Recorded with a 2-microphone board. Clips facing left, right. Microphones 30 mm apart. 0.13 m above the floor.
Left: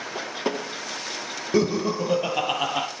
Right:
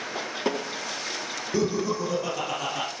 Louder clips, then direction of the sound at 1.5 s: Left 4 dB; 50° left (ahead or behind).